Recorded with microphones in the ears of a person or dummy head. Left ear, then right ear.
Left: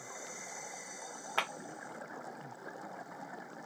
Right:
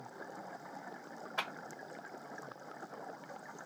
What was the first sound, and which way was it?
A clap, 45° left (ahead or behind).